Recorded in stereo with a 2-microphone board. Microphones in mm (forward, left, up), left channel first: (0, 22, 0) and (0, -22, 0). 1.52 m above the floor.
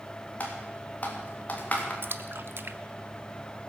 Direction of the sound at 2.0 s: 55° right (ahead or behind).